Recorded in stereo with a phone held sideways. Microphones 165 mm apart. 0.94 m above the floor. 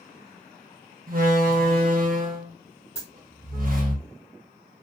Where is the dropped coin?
35° left (ahead or behind), 1.2 m.